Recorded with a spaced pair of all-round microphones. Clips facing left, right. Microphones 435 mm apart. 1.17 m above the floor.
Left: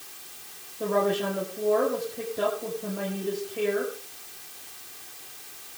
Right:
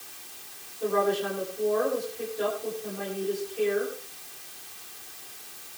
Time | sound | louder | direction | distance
0.8 | a woman speaking | even | 85° left | 6.5 m